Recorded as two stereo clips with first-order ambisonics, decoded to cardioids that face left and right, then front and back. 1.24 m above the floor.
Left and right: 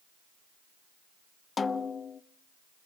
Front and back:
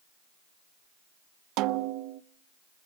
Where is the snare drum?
160° left, 0.5 m.